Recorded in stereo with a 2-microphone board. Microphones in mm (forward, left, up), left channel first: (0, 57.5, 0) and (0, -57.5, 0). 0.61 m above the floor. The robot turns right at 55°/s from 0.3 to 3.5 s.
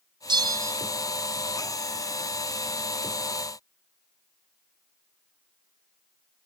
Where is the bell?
40° right (ahead or behind), 1.5 m; by 0.8 s 20° right (ahead or behind), 1.5 m.